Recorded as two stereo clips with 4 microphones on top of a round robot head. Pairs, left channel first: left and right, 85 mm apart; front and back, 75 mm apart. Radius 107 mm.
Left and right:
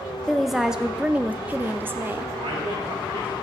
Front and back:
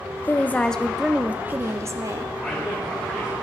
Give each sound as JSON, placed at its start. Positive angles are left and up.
{"t": 0.3, "sound": "a woman speaking", "azimuth_deg": 5, "distance_m": 0.8}
{"t": 2.4, "sound": "a man speaking", "azimuth_deg": -95, "distance_m": 5.0}